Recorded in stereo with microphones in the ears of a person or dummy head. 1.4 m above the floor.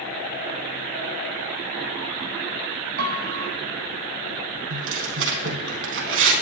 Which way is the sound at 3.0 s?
55° right (ahead or behind).